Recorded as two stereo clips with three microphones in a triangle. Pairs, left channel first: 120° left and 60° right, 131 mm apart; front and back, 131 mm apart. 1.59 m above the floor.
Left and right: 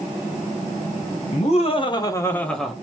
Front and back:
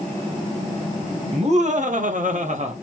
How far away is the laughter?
About 1.1 m.